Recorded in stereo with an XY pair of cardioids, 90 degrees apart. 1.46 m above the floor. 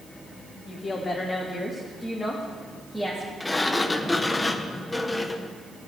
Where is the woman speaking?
40° left, 2.5 m; by 3.3 s 15° right, 2.5 m.